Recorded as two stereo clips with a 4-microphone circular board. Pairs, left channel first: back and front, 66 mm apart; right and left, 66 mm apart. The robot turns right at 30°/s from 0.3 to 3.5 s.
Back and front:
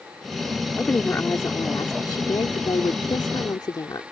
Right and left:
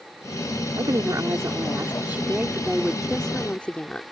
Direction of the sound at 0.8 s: 115° left.